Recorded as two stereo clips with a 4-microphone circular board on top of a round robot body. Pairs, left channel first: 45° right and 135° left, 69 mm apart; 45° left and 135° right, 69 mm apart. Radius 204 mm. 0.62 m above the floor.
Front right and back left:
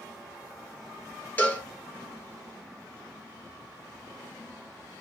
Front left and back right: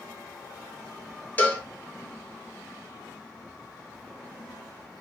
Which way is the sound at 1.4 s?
Straight ahead.